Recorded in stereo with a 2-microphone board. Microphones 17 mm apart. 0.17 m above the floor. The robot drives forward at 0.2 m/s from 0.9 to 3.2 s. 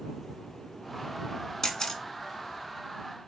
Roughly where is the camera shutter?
Left.